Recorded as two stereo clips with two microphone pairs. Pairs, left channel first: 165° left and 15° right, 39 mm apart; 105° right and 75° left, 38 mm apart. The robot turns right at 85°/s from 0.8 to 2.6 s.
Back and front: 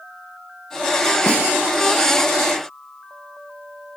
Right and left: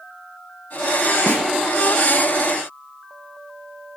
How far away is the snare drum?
About 8.5 m.